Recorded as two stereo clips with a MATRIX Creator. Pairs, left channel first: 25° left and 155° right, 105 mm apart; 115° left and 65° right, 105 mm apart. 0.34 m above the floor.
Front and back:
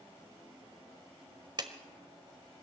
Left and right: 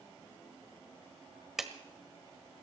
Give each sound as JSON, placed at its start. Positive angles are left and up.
{"t": 1.6, "sound": "a clap", "azimuth_deg": -150, "distance_m": 1.3}